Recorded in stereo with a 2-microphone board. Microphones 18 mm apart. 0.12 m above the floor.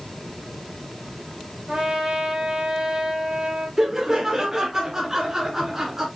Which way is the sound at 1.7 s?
60° right (ahead or behind).